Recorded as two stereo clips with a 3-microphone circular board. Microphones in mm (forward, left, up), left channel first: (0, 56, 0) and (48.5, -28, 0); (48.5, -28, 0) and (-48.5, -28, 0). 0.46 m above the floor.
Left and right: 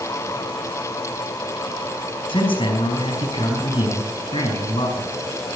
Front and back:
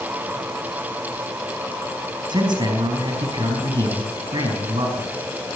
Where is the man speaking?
140° left, 4.5 m.